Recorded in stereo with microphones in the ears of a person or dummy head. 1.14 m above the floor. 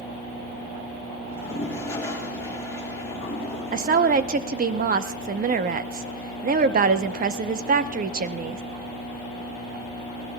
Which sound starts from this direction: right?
A woman speaking, at 3.7 s.